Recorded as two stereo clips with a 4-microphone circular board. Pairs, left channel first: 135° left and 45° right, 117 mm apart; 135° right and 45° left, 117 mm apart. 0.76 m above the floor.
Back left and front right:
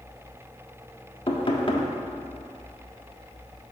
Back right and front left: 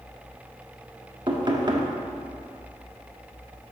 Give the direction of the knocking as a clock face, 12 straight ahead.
9 o'clock.